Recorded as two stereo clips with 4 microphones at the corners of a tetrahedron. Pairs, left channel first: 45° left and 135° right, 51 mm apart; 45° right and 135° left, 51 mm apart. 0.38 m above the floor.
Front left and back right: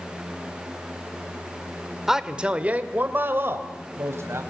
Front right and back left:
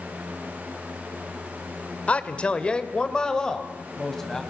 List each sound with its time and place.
2.1 s a man speaking: 60° right, 1.5 m; by 4.4 s 125° right, 3 m